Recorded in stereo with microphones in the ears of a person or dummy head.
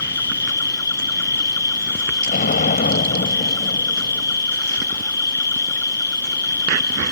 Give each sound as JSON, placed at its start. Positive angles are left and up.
{"t": 0.0, "sound": "an insect", "side_deg": 20}
{"t": 2.3, "sound": "an explosion", "side_deg": 40}